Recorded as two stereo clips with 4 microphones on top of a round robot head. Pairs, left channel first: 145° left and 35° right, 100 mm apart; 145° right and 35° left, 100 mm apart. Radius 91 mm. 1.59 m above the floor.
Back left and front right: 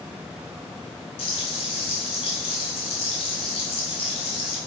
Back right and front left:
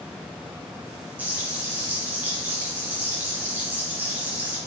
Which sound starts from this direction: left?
Frying, at 1.2 s.